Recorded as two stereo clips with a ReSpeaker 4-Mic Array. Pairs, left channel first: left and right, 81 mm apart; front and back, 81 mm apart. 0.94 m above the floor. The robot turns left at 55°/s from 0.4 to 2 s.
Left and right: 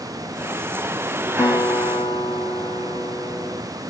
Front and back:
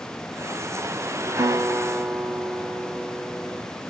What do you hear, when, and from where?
1.4 s a guitar: 140° left, 1.2 m; by 3.6 s 105° left, 1.2 m